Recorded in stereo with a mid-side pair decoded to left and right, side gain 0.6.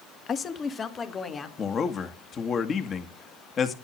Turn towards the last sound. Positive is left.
turn(degrees=40)